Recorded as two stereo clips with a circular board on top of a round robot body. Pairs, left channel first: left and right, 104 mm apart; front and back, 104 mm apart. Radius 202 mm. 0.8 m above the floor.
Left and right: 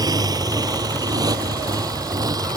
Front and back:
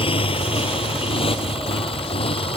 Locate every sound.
0.0 s a motorcycle: 35° right